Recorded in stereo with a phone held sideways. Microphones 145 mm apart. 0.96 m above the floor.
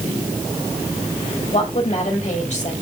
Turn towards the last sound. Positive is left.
turn(degrees=50)  # may be behind; listen again after turning